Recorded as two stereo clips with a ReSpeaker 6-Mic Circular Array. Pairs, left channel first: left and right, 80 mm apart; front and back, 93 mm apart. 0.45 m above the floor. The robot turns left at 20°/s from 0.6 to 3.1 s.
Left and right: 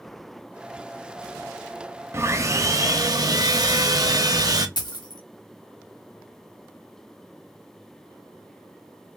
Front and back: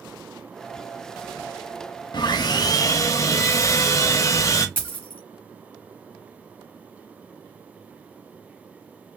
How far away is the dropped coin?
About 1.4 m.